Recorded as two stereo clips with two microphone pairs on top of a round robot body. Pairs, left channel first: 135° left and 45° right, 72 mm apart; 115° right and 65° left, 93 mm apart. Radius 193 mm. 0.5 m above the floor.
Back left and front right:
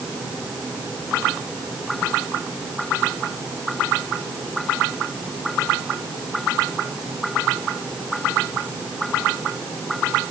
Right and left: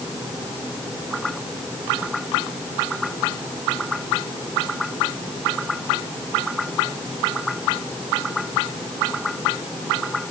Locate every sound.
Only background noise.